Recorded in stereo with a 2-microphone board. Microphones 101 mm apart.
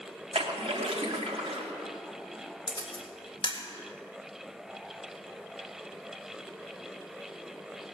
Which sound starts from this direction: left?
A camera shutter, at 2.7 s.